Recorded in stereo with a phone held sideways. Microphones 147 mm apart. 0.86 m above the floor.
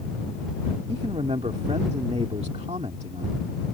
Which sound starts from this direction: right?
A man speaking, at 0.9 s.